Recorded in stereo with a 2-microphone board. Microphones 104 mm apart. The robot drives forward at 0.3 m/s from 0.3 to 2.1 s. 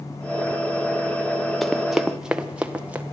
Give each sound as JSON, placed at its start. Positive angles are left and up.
{"t": 1.6, "sound": "running footsteps", "side_deg": 0, "distance_m": 1.0}